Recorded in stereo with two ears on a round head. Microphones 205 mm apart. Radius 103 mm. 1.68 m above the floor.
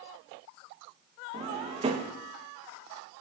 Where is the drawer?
25° right (ahead or behind), 0.9 m.